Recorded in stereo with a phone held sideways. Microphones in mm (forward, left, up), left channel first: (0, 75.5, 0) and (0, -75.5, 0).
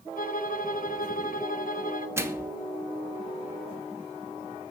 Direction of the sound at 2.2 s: 15° right (ahead or behind).